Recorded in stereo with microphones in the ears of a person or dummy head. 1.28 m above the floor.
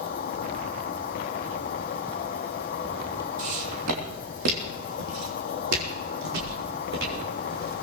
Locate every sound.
0.0 s an insect: 35° left (ahead or behind), 0.8 m
3.4 s footsteps: 70° right (ahead or behind), 3 m